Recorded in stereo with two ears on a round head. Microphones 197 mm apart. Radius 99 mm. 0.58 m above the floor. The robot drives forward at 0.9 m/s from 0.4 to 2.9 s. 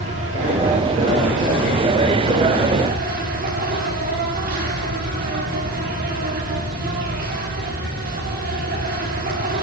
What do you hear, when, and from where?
0.0 s an insect: 30° right (ahead or behind), 8 m; by 9.6 s 40° right (ahead or behind), 6.5 m